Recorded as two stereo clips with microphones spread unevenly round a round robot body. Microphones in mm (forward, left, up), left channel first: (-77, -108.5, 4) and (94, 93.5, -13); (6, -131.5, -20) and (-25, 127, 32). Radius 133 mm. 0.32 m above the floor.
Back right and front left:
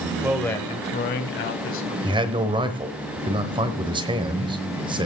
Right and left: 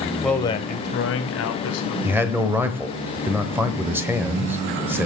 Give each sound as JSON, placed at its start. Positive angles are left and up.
{"t": 0.2, "sound": "a man speaking", "azimuth_deg": -15, "distance_m": 1.0}
{"t": 2.0, "sound": "a man speaking", "azimuth_deg": 0, "distance_m": 1.0}